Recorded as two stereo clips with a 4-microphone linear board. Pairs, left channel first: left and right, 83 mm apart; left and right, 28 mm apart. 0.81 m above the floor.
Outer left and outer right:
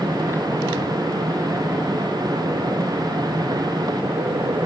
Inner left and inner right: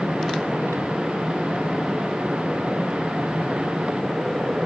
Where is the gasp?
No gasp in this recording.